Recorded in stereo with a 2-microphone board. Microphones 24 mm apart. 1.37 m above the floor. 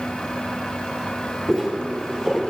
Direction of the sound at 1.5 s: 15° left (ahead or behind).